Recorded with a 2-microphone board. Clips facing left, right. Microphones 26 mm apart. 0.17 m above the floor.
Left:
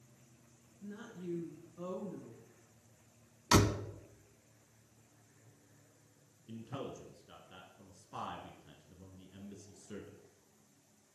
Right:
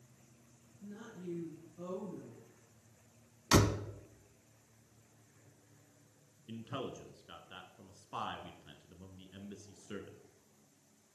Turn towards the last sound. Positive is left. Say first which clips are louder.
# right 2 dB
turn(degrees=-35)  # may be behind; listen again after turning